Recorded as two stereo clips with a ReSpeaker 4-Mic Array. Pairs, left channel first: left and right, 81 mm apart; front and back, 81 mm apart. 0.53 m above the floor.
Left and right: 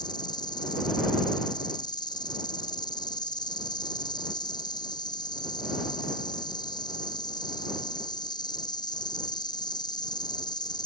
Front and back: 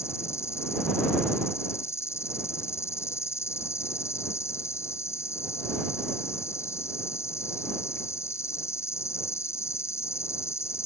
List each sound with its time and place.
0.0 s an insect: 55° left